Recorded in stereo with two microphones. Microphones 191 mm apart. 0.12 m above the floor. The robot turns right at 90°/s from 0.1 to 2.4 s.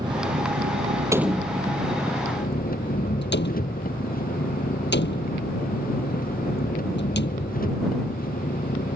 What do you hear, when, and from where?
0.0 s an engine running: 160° right; by 9.0 s 50° left
1.1 s a door slam: 15° right (ahead or behind); by 7.5 s 70° left (ahead or behind)